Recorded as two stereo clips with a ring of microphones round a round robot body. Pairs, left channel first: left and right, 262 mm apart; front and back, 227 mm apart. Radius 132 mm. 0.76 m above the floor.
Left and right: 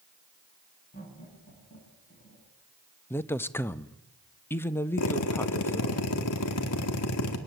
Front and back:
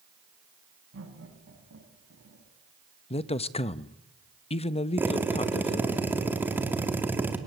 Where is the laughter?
150° left, 6.5 m; by 2.5 s 145° left, 6 m.